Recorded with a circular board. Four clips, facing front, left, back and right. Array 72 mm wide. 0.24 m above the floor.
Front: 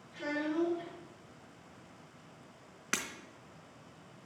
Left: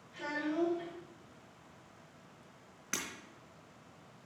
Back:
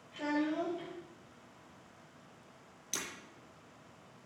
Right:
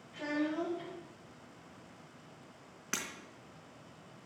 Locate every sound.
0.1 s a child speaking: 165° right, 4.5 m
2.9 s breaking glass: 10° right, 1.3 m